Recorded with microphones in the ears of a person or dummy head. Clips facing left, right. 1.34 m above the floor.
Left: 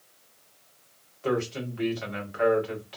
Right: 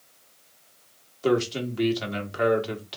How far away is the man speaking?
About 1.8 m.